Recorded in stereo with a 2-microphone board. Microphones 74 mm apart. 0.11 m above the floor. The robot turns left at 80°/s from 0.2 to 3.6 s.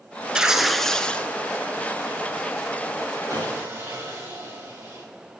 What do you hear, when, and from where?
0.3 s tearing paper: 10° right (ahead or behind), 0.6 m; by 1.3 s 20° left (ahead or behind), 0.6 m
3.3 s sawing: 60° right (ahead or behind), 2.5 m; by 5.0 s 35° right (ahead or behind), 2.5 m